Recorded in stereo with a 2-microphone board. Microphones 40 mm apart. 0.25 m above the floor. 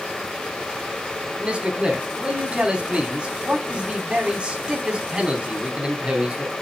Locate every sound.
1.3 s a man speaking: 25° right (ahead or behind), 2.5 m